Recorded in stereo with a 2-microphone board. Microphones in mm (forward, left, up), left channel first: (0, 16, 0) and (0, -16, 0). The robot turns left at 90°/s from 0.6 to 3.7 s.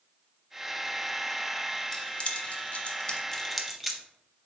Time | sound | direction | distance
1.9 | keys jangling | 20° left (ahead or behind) | 0.5 m